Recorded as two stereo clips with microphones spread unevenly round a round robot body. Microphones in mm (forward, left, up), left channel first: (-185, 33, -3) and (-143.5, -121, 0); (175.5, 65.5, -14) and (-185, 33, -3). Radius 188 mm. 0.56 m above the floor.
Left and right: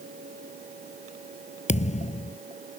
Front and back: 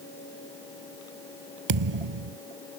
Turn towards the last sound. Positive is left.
turn(degrees=150)